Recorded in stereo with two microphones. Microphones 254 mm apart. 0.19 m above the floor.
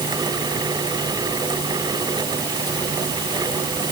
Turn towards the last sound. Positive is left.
No sound to turn to.